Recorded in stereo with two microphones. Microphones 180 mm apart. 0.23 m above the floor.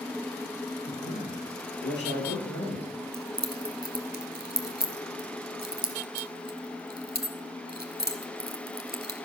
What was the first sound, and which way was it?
A man speaking, 80° left.